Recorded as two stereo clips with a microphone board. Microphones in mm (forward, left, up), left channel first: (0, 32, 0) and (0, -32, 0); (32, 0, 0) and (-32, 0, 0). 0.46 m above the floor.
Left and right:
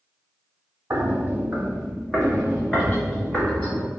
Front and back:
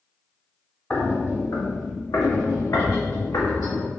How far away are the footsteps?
About 0.7 m.